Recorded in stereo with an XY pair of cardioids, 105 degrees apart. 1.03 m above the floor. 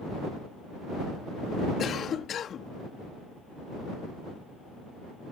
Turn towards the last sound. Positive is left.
turn(degrees=55)